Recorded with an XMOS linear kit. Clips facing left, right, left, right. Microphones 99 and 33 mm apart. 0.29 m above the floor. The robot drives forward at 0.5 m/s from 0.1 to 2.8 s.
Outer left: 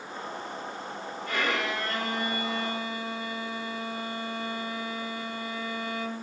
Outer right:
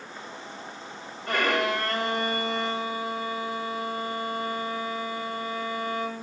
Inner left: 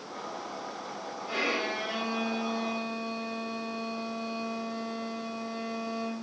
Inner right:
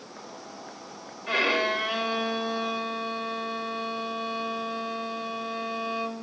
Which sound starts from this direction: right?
A violin, at 1.3 s.